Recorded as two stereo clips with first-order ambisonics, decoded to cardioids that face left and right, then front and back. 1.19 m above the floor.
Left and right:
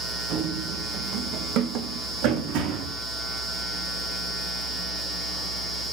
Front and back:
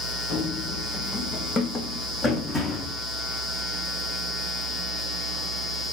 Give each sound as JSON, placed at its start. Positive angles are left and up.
{"t": 0.3, "sound": "running footsteps", "azimuth_deg": -50, "distance_m": 4.0}